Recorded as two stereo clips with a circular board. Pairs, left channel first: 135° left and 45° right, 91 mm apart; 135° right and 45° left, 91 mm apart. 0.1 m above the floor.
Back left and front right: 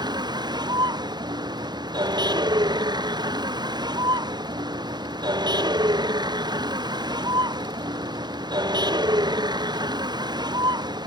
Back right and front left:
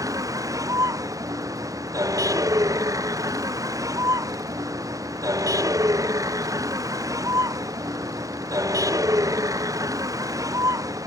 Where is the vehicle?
5° right.